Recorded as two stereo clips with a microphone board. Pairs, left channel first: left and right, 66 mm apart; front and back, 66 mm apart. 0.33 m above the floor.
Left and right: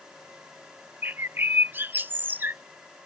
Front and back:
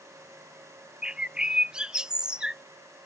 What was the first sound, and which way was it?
A bird, 110° right.